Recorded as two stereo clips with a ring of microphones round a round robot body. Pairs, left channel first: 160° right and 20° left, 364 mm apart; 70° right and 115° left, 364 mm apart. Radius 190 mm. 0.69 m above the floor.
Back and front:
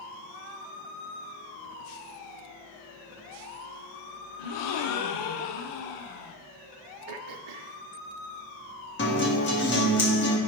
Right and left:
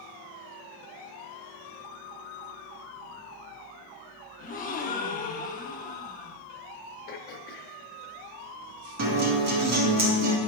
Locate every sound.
4.4 s a gasp: 135° right, 0.7 m
7.1 s throat clearing: 5° right, 0.5 m
9.0 s a guitar: 150° left, 1.8 m